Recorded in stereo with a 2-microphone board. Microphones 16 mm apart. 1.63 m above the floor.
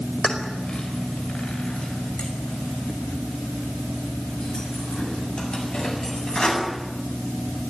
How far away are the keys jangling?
About 4.5 m.